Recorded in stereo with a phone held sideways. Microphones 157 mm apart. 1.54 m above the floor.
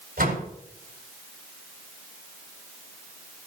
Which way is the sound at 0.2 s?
70° right (ahead or behind).